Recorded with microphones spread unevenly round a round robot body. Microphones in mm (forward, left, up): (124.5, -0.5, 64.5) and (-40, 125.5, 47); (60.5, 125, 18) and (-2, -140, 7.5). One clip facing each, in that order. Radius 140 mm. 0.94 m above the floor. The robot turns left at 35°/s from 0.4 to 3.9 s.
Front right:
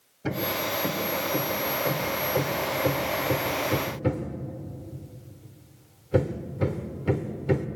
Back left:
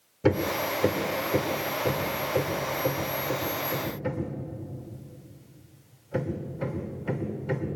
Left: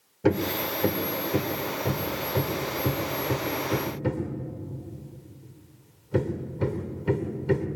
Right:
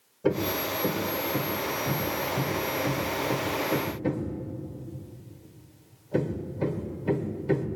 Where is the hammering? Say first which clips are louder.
Back left 5 dB, left 2 dB; 135° left, 2.5 m; by 7.7 s 10° left, 2.5 m.